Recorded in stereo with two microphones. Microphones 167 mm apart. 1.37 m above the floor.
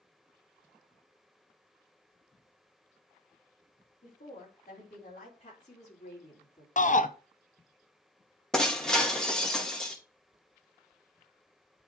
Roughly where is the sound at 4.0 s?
Left.